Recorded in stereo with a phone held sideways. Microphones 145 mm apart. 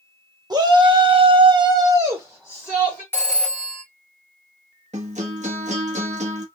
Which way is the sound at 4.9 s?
55° right (ahead or behind).